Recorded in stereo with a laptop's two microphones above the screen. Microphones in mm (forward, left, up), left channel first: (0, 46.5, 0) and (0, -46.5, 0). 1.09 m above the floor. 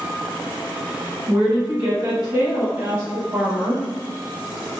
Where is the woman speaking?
55° right (ahead or behind), 1.0 m; by 3.8 s 40° right (ahead or behind), 2 m.